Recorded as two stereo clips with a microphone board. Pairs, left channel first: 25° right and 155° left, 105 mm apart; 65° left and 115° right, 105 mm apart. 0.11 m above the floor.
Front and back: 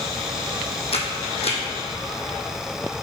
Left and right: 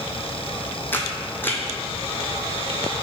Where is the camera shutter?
5° right, 0.9 m.